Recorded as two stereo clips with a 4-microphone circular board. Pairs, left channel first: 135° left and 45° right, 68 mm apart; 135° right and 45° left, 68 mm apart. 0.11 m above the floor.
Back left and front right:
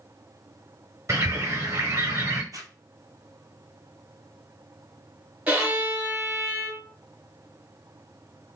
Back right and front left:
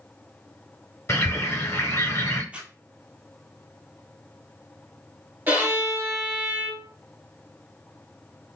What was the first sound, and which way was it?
A bird, 90° right.